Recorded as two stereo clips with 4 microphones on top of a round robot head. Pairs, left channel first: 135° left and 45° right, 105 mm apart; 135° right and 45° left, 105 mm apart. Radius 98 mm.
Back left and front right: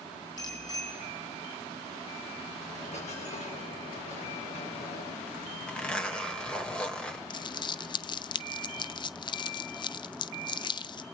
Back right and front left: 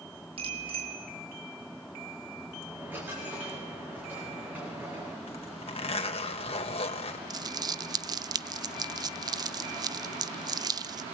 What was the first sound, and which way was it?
A bicycle bell, 80° left.